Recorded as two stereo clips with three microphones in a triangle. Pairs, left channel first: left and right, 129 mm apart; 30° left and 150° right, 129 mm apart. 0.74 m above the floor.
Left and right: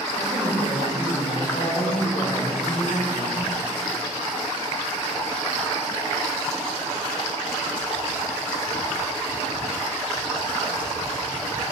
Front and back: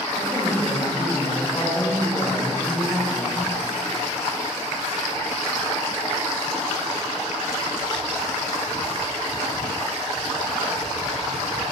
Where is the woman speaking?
95° left, 3 m.